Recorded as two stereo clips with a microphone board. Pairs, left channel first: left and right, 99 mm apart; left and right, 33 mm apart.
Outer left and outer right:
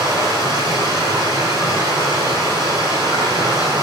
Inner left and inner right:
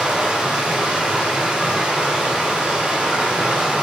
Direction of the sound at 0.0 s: 40° right (ahead or behind).